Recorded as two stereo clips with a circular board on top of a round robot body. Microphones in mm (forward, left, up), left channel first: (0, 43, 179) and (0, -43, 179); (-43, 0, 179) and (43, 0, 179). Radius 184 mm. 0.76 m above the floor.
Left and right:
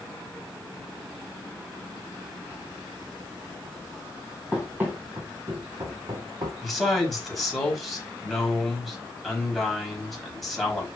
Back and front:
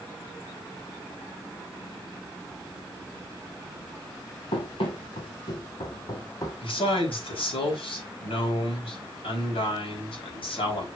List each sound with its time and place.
4.5 s running footsteps: 165° right, 1.5 m; by 6.5 s 125° right, 1.8 m
6.6 s a man speaking: straight behind, 5 m